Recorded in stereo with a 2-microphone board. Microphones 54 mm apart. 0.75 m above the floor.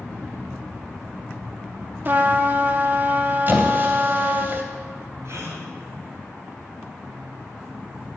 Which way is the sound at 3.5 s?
40° right (ahead or behind).